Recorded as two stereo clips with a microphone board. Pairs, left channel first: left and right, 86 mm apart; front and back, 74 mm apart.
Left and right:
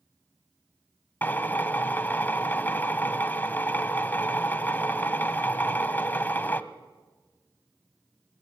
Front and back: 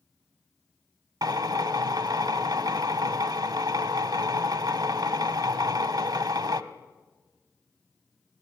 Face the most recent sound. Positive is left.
turn(degrees=155)